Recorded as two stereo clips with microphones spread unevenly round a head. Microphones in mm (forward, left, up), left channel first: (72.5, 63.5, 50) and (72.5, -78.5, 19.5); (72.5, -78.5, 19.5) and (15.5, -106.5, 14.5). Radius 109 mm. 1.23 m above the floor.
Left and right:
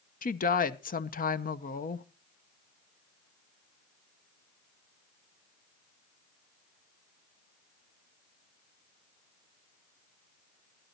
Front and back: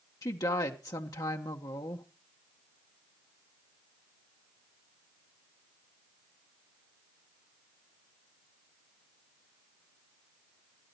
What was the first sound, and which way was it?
A woman speaking, 65° left.